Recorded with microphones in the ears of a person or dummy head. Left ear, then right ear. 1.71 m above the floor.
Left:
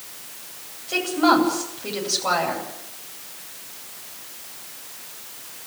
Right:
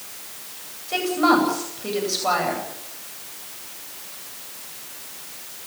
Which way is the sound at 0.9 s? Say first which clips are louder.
Even; centre (ahead or behind).